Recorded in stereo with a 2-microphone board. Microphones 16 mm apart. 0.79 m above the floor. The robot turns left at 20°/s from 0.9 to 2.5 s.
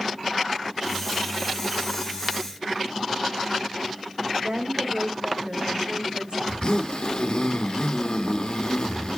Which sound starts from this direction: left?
A zipper, at 6.5 s.